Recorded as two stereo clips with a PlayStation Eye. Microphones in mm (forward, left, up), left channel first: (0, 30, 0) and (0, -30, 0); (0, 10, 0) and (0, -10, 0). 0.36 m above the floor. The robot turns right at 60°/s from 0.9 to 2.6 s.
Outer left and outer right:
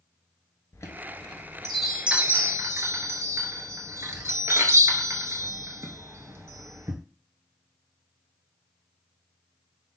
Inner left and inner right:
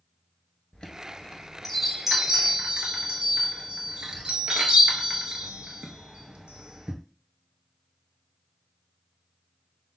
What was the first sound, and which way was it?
A chime, 50° left (ahead or behind).